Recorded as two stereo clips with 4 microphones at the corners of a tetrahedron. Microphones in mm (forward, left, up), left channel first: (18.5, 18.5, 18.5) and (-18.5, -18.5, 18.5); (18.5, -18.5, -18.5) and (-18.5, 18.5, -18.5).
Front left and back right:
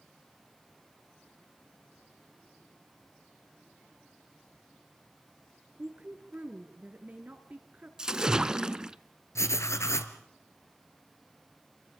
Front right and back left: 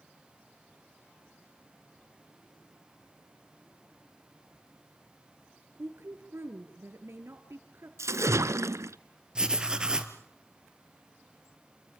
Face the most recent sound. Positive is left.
turn(degrees=65)